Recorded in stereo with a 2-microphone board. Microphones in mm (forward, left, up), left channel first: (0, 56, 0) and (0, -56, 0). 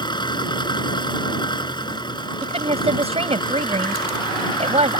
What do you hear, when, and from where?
0.0 s an engine running: 40° left (ahead or behind)
2.4 s a woman speaking: 65° right (ahead or behind)